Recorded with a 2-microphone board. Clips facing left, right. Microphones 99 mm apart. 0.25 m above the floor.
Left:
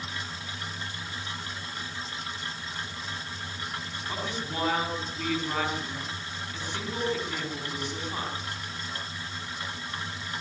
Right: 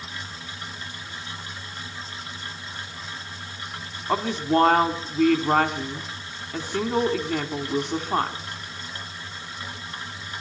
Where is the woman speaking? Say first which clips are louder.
Right 13 dB; 50° right (ahead or behind), 2 m.